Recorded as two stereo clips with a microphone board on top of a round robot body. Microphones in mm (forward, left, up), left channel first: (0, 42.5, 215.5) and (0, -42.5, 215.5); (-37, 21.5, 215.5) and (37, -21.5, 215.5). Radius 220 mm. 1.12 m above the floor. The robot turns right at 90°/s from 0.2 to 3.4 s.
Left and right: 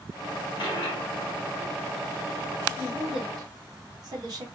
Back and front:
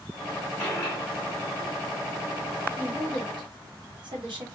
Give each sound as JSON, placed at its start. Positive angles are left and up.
{"t": 0.6, "sound": "a dropped coin", "azimuth_deg": 70, "distance_m": 1.7}
{"t": 2.8, "sound": "a woman speaking", "azimuth_deg": -110, "distance_m": 1.8}